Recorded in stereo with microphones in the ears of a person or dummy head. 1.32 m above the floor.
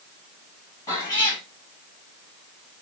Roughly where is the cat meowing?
Centre.